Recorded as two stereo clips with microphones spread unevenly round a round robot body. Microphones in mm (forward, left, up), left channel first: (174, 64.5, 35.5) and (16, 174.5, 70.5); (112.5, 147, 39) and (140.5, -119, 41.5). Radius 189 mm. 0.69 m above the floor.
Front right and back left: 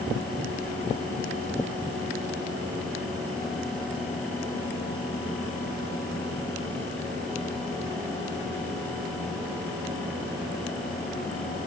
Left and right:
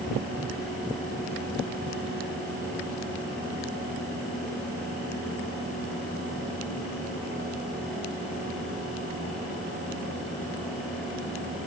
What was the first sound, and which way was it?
Only background noise.